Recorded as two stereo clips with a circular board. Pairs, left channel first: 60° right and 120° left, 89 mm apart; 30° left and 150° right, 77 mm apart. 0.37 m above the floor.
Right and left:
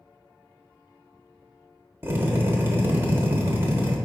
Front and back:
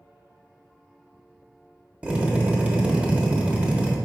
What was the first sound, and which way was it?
A drill, 155° left.